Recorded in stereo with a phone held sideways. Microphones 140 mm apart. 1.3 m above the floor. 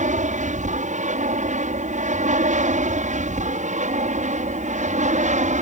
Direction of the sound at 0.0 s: 60° right (ahead or behind).